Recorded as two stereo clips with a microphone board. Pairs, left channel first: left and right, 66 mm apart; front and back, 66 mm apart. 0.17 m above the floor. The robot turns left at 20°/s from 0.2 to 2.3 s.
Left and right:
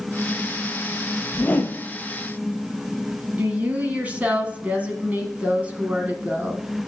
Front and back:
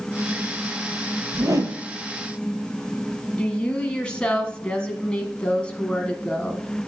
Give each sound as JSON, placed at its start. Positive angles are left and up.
{"t": 1.3, "sound": "a whoosh", "azimuth_deg": 155, "distance_m": 0.8}
{"t": 3.4, "sound": "a woman speaking", "azimuth_deg": -55, "distance_m": 1.1}